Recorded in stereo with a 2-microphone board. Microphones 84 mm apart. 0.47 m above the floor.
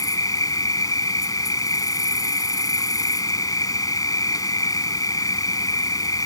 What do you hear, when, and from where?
0.0 s an insect: 45° left (ahead or behind)